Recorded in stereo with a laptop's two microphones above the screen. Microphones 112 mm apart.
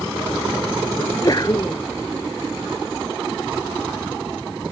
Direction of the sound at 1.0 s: 40° left (ahead or behind).